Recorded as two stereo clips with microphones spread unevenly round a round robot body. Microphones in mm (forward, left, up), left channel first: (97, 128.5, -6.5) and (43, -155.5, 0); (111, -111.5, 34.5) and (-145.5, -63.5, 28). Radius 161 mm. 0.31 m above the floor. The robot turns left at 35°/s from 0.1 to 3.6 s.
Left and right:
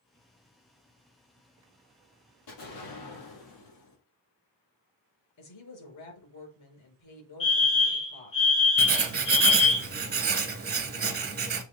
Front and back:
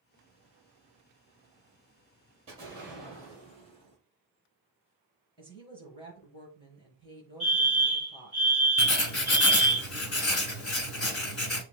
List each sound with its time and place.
2.5 s an explosion: 100° left, 4.5 m; by 4.0 s 60° left, 4.5 m
5.4 s a woman speaking: 65° left, 4.5 m
7.4 s a fire alarm: 55° left, 3 m
8.8 s writing: 45° right, 1.5 m